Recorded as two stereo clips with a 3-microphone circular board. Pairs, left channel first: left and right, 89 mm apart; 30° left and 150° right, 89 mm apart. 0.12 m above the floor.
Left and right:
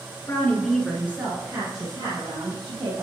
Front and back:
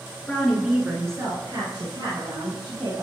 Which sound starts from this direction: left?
A woman speaking, at 0.3 s.